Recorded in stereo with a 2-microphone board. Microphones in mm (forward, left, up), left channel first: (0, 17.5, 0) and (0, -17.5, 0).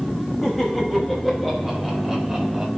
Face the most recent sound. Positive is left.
turn(degrees=-10)  # may be behind; listen again after turning